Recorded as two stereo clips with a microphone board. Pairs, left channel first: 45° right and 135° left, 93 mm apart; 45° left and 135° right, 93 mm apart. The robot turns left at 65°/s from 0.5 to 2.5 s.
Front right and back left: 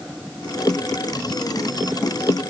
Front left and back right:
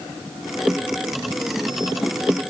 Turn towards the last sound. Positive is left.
No sound to turn to.